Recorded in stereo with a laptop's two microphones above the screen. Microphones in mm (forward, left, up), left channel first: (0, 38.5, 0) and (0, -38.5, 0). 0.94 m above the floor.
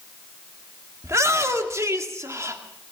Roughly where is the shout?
Right.